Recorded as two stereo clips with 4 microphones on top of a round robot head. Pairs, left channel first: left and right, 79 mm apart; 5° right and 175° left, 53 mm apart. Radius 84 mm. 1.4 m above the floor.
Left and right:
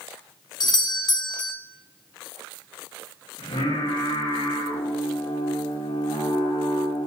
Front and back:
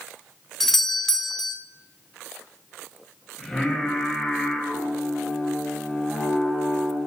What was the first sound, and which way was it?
A doorbell, 80° left.